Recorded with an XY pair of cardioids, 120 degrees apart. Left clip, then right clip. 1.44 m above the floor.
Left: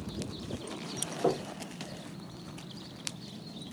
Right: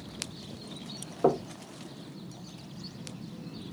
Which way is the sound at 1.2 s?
35° right.